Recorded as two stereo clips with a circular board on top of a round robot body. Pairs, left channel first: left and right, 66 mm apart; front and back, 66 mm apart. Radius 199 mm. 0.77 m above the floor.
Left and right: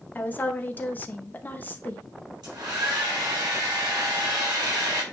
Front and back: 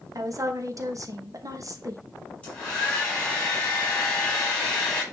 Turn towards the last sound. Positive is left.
turn(degrees=-70)